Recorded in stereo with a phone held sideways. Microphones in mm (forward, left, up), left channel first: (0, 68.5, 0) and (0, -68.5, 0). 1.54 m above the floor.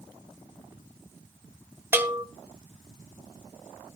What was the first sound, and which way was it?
A bell, 15° right (ahead or behind).